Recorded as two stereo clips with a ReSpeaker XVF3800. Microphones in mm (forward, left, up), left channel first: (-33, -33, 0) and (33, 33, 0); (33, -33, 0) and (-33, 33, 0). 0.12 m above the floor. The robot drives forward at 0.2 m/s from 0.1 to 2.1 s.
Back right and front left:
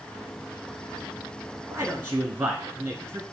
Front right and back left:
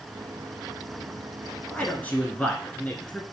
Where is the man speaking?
5° left, 1.2 m.